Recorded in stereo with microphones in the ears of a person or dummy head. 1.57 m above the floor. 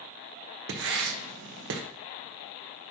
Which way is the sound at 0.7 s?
75° right (ahead or behind).